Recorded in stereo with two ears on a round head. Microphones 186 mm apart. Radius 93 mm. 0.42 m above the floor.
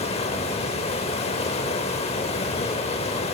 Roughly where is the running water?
Left.